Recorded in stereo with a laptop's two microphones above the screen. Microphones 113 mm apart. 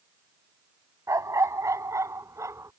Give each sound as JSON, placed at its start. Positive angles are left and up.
{"t": 1.1, "sound": "a dog barking", "side_deg": -30}